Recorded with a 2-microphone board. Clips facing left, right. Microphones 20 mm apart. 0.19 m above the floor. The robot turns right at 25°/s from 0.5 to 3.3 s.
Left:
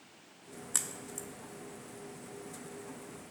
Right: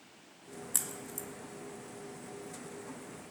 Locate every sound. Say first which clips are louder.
0.7 s a crack: left 1 dB; 20° left (ahead or behind), 0.7 m; by 1.3 s 25° left (ahead or behind), 0.7 m